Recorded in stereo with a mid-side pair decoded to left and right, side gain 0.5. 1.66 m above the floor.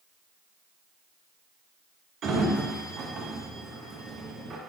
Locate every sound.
2.2 s a sliding door: 50° right, 0.8 m